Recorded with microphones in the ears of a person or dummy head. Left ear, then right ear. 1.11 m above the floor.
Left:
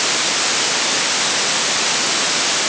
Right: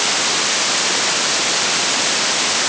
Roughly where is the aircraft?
I don't hear an aircraft.